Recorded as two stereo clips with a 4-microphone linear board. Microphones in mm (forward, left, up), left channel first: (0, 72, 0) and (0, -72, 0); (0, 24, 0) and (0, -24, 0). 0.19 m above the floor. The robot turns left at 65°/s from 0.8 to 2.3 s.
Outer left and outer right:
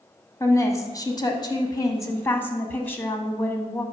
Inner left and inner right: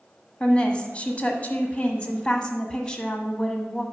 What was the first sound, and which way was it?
A woman speaking, 25° left (ahead or behind).